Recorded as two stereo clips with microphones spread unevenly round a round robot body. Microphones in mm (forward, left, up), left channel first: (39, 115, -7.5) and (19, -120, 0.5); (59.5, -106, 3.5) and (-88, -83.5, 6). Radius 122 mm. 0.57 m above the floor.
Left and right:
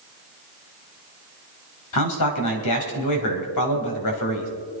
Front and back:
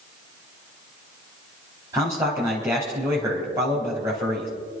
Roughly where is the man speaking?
Left.